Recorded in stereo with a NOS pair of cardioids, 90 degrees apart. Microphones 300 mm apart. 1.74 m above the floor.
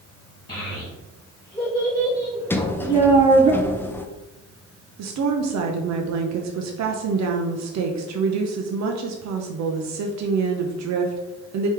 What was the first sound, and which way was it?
A child speaking, 20° left.